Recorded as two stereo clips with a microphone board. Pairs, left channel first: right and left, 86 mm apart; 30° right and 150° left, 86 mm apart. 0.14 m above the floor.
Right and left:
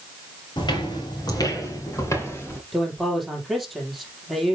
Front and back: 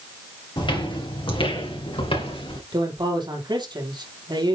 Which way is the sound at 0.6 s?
60° right.